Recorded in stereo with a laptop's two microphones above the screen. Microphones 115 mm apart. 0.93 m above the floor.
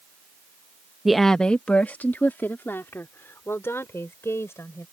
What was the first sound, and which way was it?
A woman speaking, 5° right (ahead or behind).